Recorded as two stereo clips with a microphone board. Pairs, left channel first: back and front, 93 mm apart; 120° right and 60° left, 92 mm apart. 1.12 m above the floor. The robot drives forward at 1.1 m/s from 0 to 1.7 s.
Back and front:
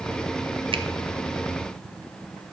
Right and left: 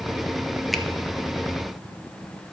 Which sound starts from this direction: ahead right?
A finger snap, at 0.7 s.